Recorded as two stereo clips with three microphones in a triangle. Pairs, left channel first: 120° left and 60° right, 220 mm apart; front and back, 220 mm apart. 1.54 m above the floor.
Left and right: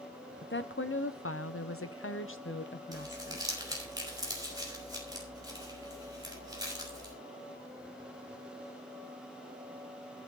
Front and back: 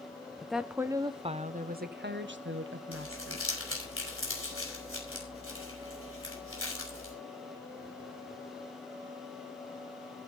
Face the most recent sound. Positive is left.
turn(degrees=15)